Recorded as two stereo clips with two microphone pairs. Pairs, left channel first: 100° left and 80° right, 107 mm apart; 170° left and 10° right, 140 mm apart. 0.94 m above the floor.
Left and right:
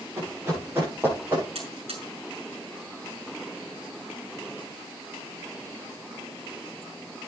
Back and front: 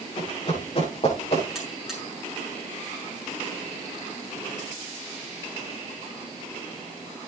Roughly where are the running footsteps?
Behind right.